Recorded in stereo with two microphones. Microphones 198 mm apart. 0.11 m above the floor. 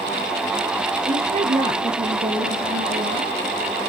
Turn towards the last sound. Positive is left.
turn(degrees=-65)  # may be behind; listen again after turning